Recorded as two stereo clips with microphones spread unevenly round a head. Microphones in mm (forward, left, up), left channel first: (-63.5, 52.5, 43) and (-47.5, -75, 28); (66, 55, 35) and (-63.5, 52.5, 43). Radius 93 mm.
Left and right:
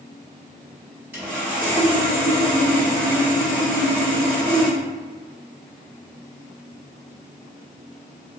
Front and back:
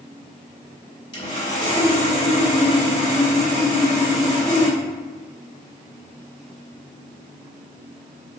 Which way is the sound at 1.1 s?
Straight ahead.